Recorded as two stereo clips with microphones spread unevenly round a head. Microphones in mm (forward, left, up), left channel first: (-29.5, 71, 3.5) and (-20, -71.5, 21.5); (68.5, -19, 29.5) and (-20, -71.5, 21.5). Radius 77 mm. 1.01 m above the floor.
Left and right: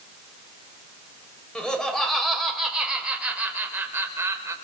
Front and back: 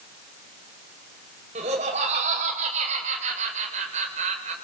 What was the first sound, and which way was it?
Laughter, straight behind.